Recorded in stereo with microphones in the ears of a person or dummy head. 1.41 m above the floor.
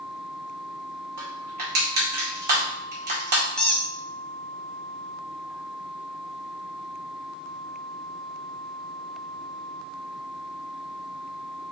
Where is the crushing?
50° right (ahead or behind), 2.5 m.